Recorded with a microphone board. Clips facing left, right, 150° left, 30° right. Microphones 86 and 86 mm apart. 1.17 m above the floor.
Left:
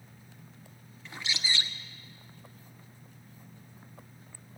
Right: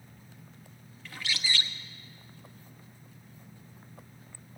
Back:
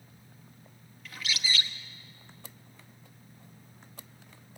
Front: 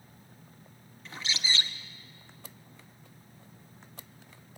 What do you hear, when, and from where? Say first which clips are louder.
1.1 s a bird: even, even; 25° left, 0.9 m